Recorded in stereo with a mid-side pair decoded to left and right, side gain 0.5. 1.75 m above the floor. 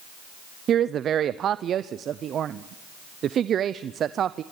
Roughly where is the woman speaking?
Ahead right.